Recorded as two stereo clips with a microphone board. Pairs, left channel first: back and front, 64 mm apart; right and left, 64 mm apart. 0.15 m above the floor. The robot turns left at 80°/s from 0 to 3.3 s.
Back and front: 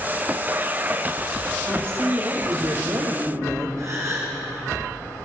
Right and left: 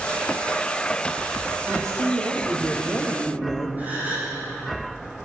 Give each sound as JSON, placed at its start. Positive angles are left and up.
{"t": 1.7, "sound": "a woman speaking", "azimuth_deg": 120, "distance_m": 4.0}
{"t": 3.8, "sound": "a gasp", "azimuth_deg": 30, "distance_m": 9.0}